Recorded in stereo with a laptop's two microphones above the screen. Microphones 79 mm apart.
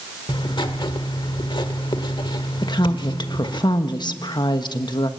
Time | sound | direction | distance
0.3 | writing | 70° left (ahead or behind) | 1.4 m
2.6 | a woman speaking | 60° left (ahead or behind) | 1.4 m